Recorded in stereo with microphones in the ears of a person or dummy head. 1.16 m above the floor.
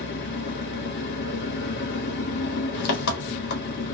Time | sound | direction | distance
0.0 | an engine running | 60° left (ahead or behind) | 1.0 m